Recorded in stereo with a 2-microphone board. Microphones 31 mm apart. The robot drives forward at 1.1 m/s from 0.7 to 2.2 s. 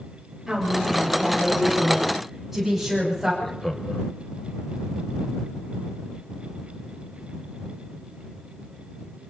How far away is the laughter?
About 1.3 m.